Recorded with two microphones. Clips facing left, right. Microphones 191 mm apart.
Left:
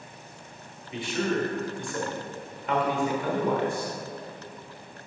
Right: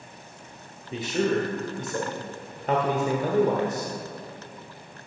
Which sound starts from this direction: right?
A man speaking, at 0.9 s.